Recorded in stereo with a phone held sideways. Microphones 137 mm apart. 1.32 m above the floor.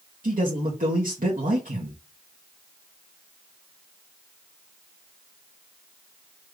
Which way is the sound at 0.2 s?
80° right.